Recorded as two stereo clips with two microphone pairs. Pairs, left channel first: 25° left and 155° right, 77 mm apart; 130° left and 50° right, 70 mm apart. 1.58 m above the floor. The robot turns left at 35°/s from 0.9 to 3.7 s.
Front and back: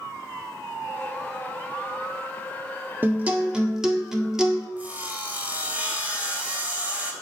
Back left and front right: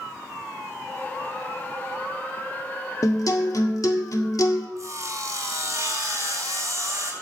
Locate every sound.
3.0 s a guitar: 150° left, 1.7 m; by 4.7 s 125° left, 1.7 m
4.8 s sawing: 85° right, 2.5 m